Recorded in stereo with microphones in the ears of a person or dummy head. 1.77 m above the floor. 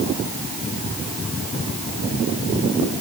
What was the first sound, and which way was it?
Only background noise.